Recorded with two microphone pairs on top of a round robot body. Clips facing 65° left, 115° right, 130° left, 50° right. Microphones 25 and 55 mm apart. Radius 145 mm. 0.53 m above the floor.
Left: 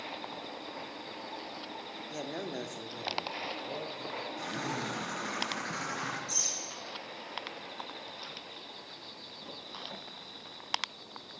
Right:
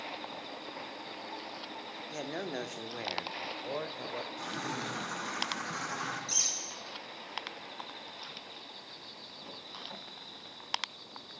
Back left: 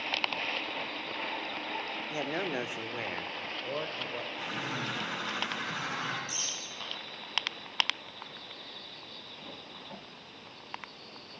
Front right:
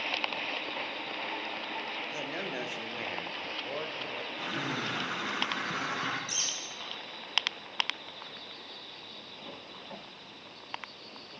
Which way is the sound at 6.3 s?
75° right.